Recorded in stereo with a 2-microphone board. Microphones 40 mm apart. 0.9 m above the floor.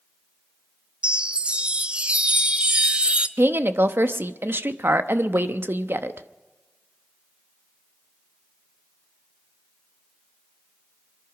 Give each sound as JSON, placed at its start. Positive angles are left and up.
{"t": 1.0, "sound": "a chime", "side_deg": -25, "distance_m": 0.8}
{"t": 3.4, "sound": "a woman speaking", "side_deg": -65, "distance_m": 0.8}